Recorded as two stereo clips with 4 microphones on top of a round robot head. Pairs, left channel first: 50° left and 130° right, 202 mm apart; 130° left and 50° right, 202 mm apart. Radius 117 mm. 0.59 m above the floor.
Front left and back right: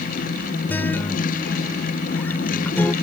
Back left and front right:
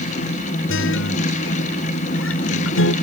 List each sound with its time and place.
0.7 s a guitar: 130° left